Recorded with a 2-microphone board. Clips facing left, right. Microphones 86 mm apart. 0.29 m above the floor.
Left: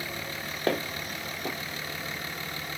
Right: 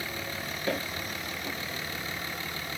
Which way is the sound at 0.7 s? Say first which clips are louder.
Left 4 dB; 60° left (ahead or behind).